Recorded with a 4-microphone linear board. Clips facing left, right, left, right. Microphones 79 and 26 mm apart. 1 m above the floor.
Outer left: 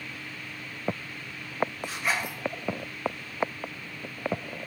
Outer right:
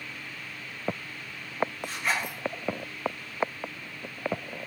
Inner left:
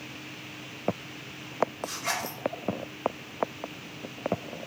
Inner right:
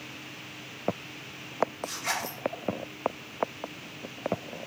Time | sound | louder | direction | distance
1.8 | a zipper | even, even | centre (ahead or behind) | 0.5 m